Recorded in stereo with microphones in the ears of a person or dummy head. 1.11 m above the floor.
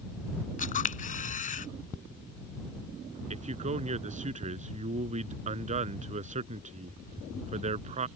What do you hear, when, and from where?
0.6 s a camera shutter: 40° left (ahead or behind)
3.3 s a man speaking: 35° right (ahead or behind)